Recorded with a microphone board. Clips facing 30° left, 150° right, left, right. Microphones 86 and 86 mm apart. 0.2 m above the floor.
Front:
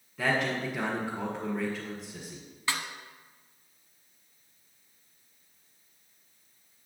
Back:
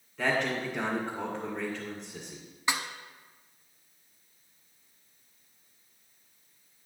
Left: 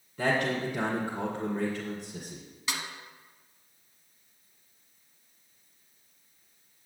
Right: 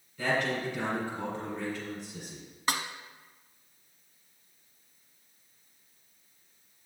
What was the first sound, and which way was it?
A man speaking, 120° left.